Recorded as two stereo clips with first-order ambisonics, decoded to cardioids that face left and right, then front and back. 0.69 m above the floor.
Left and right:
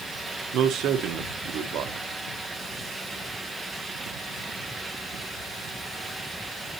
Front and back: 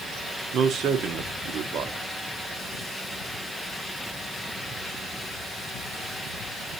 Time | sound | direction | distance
0.5 | a man speaking | 130° right | 1.0 m